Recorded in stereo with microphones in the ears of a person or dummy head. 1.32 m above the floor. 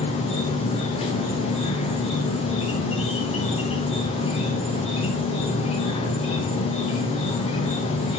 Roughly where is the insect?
Left.